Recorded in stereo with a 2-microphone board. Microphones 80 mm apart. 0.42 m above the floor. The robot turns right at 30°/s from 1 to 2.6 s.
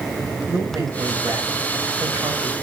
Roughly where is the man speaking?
Behind right.